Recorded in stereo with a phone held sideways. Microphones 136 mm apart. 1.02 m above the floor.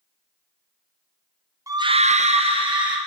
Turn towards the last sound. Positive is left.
turn(degrees=-35)  # may be behind; listen again after turning